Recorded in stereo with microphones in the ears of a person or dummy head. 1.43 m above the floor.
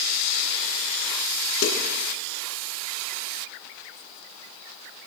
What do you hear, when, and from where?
1.6 s a snare drum: 70° left (ahead or behind), 8.5 m